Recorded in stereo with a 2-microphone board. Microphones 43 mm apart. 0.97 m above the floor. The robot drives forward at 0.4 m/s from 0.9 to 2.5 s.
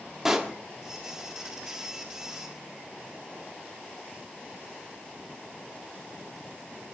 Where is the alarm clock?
I don't hear an alarm clock.